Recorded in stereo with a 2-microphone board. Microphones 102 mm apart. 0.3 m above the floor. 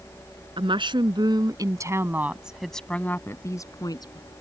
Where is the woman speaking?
60° right (ahead or behind); by 4.3 s 50° left (ahead or behind).